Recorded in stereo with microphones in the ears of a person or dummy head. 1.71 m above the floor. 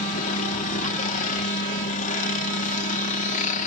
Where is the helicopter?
40° left (ahead or behind).